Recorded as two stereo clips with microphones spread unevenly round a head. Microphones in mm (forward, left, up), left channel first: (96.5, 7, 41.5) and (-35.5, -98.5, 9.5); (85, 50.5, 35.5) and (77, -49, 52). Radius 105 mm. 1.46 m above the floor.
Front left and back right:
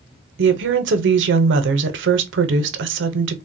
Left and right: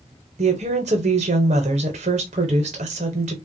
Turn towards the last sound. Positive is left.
turn(degrees=-140)